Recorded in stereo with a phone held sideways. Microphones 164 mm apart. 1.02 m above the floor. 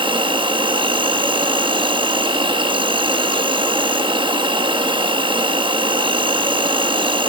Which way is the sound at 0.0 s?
30° right (ahead or behind).